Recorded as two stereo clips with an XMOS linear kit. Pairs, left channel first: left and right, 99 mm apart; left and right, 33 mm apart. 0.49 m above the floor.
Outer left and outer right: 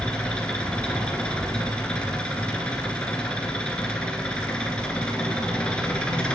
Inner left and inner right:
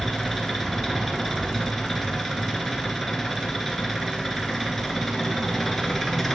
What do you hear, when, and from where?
0.0 s an engine running: 10° left (ahead or behind), 1.6 m